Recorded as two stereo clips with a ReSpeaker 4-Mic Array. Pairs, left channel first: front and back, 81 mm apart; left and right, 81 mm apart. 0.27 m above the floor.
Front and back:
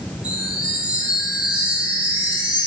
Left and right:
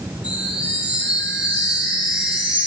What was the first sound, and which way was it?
A chime, 110° left.